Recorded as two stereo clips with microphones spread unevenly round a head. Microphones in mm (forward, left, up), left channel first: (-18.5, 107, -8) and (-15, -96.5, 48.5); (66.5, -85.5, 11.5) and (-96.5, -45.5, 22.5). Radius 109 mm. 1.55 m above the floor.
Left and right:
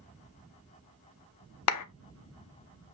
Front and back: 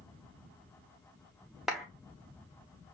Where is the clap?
80° left, 0.6 m.